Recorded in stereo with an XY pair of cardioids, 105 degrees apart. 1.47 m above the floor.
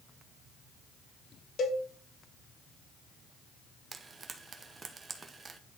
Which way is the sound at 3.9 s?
25° right.